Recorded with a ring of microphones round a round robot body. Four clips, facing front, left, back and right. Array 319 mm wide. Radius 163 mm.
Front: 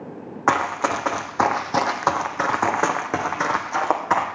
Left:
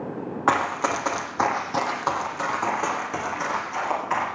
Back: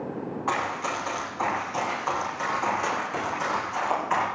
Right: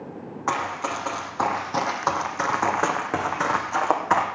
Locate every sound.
0.5 s running footsteps: 30° left, 1.9 m; by 4.2 s 45° right, 2.5 m